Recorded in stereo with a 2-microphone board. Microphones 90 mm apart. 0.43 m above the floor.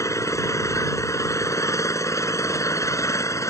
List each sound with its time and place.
0.0 s an engine running: 35° left (ahead or behind)